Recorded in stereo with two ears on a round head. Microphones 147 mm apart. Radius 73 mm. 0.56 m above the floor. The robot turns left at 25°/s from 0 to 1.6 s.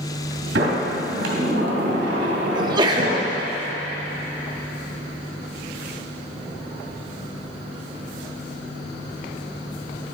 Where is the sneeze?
25° right (ahead or behind), 0.7 m.